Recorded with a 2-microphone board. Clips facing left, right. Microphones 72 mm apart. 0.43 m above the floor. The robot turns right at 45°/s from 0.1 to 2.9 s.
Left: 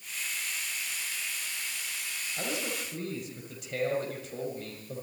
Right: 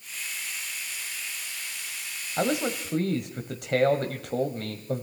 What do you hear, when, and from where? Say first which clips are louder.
2.4 s a man speaking: right 9 dB; 60° right (ahead or behind), 1.8 m; by 5.0 s 65° right (ahead or behind), 1.8 m